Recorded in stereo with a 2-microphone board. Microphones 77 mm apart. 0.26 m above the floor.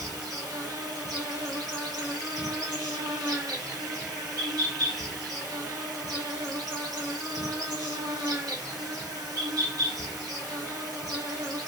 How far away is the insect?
About 1.4 m.